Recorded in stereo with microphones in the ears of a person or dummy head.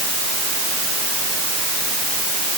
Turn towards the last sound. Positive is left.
No sound to turn to.